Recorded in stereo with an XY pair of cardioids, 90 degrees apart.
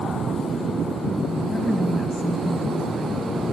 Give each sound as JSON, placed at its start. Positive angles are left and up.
{"t": 1.5, "sound": "a woman speaking", "azimuth_deg": 25, "distance_m": 2.0}